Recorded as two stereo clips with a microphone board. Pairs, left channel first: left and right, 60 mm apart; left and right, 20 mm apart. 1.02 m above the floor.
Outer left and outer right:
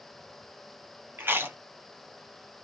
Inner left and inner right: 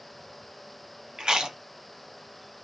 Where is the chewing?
40° right (ahead or behind), 0.7 m.